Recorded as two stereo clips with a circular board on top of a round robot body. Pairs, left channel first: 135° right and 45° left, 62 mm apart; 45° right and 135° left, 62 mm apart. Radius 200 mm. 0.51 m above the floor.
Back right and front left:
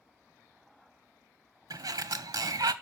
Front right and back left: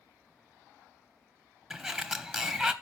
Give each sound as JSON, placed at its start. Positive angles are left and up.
{"t": 1.7, "sound": "a sliding door", "azimuth_deg": 50, "distance_m": 0.8}